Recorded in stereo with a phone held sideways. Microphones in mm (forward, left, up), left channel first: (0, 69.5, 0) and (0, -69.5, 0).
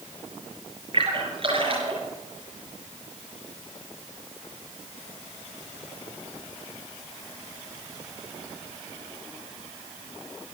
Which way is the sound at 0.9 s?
40° right (ahead or behind).